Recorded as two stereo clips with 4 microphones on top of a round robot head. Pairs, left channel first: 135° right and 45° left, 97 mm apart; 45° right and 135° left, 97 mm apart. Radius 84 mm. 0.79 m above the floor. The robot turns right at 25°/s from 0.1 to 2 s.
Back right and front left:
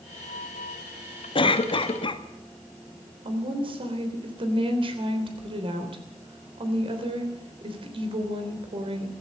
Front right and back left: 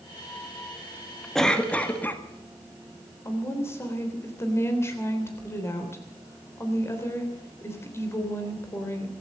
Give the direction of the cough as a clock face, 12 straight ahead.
4 o'clock.